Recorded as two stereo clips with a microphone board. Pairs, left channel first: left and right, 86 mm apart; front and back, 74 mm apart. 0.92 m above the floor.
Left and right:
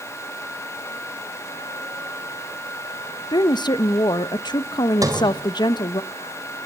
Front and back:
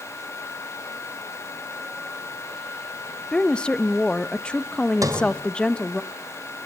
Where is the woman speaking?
75° left, 0.8 m.